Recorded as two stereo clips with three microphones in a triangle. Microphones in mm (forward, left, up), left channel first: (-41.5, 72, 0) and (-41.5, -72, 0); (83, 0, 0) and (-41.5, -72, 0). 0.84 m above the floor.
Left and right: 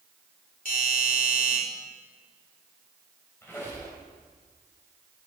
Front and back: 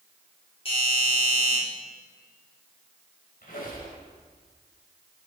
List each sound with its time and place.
0.7 s a doorbell: 80° left, 3.5 m
3.4 s a squeak: 15° left, 3.5 m